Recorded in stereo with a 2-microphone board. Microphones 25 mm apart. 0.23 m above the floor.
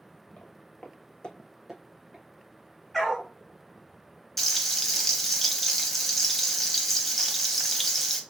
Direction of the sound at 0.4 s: 65° left (ahead or behind).